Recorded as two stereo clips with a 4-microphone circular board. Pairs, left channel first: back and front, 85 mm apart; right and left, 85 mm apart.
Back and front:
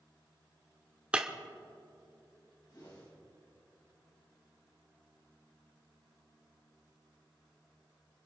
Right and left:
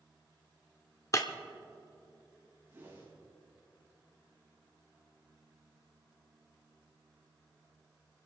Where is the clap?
I don't hear a clap.